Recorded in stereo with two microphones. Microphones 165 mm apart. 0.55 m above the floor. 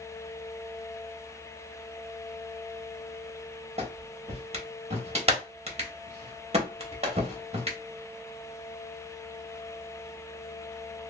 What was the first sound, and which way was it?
A clap, 40° right (ahead or behind).